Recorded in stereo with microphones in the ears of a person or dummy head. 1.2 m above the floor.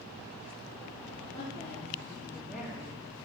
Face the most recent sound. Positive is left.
turn(degrees=-15)  # may be behind; listen again after turning